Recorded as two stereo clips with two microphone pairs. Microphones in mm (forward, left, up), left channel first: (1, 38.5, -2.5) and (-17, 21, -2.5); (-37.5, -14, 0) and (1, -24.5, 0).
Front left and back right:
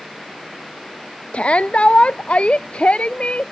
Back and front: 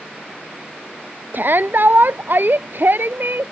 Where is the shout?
15° left.